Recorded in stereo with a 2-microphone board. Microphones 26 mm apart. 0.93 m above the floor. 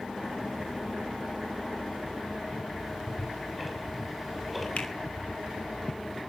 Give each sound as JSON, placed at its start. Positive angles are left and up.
{"t": 2.8, "sound": "ticking", "side_deg": 0, "distance_m": 5.5}
{"t": 4.8, "sound": "a finger snap", "side_deg": 55, "distance_m": 3.0}